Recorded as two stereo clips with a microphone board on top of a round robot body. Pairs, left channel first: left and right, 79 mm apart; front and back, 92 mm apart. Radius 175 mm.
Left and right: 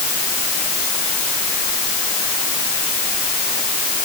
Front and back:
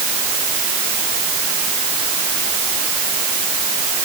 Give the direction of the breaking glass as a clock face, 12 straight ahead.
I don't hear breaking glass.